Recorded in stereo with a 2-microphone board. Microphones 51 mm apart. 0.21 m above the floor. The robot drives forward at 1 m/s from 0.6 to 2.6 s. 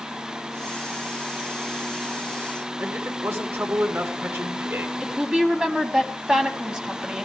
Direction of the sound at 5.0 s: 15° right (ahead or behind).